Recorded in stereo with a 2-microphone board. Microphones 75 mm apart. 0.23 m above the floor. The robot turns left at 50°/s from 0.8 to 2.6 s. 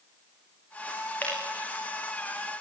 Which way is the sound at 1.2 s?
20° left (ahead or behind).